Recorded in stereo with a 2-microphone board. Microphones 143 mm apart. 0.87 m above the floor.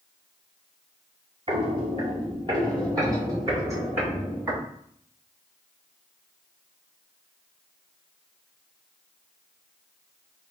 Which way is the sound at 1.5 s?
45° right (ahead or behind).